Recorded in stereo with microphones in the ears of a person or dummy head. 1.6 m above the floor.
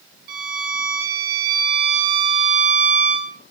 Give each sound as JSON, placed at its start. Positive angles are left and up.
{"t": 0.3, "sound": "a violin", "side_deg": -55, "distance_m": 0.5}